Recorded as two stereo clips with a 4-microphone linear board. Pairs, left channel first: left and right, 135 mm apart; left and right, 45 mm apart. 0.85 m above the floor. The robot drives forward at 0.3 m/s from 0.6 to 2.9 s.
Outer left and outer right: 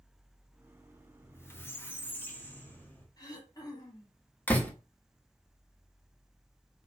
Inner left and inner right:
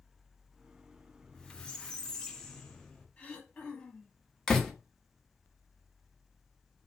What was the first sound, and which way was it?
A squeak, 20° left (ahead or behind).